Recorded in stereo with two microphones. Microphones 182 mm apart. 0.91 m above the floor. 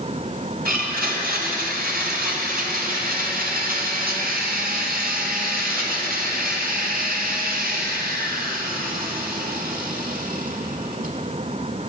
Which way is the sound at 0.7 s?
55° right (ahead or behind).